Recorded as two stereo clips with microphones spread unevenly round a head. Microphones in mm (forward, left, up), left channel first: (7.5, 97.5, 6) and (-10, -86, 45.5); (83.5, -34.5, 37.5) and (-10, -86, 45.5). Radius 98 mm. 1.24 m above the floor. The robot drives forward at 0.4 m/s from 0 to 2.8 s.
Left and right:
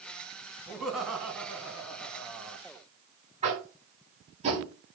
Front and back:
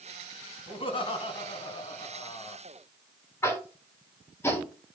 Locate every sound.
0.7 s laughter: 5° right, 3 m
3.4 s tapping: 40° right, 4.5 m